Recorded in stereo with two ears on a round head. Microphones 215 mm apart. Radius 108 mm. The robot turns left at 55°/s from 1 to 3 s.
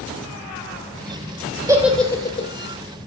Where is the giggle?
15° right (ahead or behind), 3.5 m; by 2.5 s 30° left (ahead or behind), 3.5 m.